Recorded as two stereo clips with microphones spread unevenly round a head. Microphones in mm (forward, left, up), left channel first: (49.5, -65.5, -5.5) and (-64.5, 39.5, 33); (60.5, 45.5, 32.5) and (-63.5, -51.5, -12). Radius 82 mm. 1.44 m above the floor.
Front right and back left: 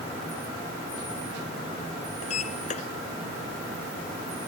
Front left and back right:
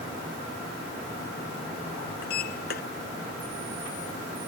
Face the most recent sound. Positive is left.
turn(degrees=10)